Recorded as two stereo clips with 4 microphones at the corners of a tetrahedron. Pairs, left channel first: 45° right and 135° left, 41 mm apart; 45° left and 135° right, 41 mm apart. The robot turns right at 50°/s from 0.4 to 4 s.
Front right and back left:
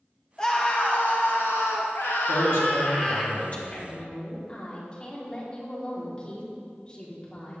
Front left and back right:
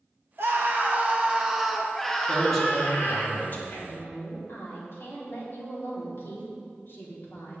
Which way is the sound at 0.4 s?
115° right.